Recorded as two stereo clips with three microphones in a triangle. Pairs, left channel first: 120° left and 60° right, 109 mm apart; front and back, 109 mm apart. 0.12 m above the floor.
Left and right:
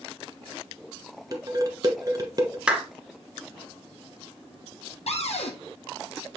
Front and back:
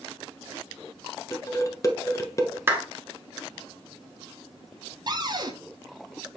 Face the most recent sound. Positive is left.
turn(degrees=130)